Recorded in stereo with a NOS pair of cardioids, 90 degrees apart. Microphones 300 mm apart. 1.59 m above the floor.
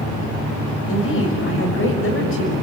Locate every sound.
0.9 s a woman speaking: 45° left, 6.5 m